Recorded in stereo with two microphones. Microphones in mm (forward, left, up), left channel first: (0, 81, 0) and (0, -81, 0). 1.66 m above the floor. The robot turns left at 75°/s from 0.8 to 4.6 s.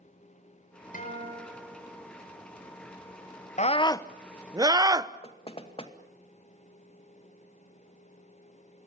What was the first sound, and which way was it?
A guitar, 60° left.